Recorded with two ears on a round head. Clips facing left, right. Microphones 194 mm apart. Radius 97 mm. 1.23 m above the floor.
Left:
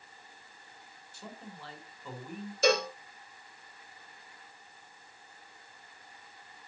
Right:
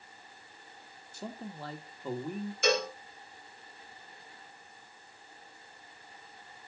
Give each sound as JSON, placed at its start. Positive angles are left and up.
{"t": 1.1, "sound": "a man speaking", "side_deg": -35, "distance_m": 1.5}
{"t": 2.6, "sound": "a cowbell", "side_deg": 30, "distance_m": 4.0}